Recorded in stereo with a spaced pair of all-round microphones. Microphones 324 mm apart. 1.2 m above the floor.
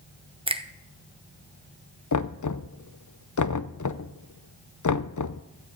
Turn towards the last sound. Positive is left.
turn(degrees=65)  # may be behind; listen again after turning